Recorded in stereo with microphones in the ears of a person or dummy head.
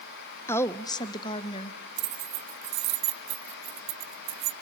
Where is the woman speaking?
15° left (ahead or behind), 0.6 m; by 1.8 s 30° left (ahead or behind), 1.2 m.